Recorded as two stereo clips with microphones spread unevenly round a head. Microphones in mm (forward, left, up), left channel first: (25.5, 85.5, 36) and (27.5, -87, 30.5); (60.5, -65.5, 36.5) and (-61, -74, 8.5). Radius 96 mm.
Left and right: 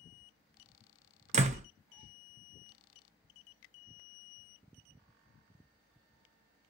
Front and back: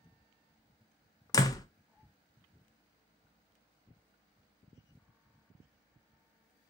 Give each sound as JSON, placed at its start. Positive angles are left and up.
{"t": 1.3, "sound": "a door slam", "azimuth_deg": -45, "distance_m": 0.5}